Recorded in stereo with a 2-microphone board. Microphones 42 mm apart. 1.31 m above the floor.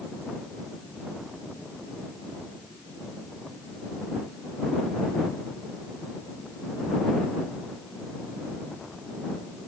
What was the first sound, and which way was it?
Only background noise.